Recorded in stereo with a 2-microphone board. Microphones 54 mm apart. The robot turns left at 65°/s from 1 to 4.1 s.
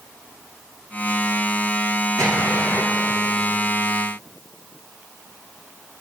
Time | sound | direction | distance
2.2 | an explosion | 80° right | 5.5 m